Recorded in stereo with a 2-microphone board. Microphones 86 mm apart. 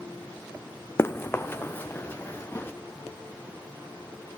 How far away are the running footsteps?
About 0.7 m.